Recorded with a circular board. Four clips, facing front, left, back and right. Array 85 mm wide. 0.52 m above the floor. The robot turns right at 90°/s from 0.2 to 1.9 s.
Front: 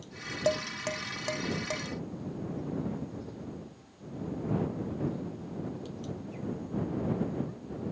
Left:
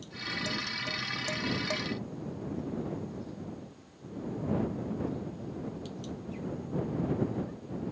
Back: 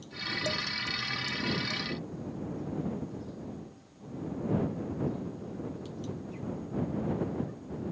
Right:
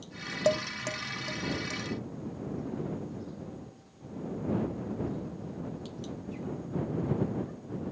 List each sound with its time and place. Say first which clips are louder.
0.5 s dishes clattering: right 13 dB, front 8 dB; 60° right; by 1.8 s 65° left